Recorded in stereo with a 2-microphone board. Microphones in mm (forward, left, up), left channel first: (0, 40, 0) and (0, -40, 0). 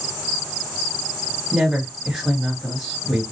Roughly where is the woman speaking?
Centre.